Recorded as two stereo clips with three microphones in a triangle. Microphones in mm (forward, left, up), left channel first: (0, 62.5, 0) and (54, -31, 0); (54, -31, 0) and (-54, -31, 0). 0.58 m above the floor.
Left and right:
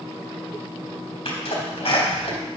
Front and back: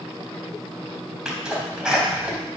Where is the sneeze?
100° left, 3.5 m.